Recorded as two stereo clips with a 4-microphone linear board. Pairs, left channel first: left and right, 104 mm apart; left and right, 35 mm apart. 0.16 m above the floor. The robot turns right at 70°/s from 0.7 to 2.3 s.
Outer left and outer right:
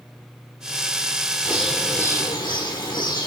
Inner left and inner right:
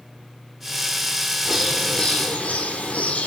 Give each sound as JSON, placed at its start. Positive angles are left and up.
{"t": 1.4, "sound": "a bird", "azimuth_deg": -20, "distance_m": 1.5}